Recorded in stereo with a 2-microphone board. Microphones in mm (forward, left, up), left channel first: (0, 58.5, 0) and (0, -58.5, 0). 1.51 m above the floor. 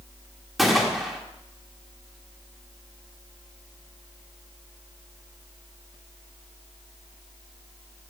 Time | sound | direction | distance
0.6 | a gunshot | centre (ahead or behind) | 1.1 m